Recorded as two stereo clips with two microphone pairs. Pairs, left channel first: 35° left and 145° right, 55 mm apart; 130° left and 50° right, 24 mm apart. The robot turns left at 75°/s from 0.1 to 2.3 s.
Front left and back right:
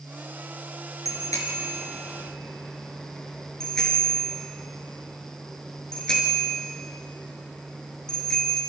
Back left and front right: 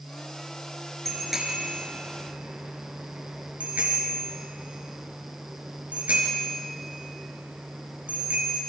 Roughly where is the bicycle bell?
Ahead left.